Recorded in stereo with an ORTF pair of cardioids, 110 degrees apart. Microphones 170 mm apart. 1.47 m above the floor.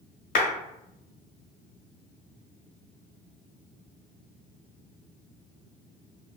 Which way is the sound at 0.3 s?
60° left.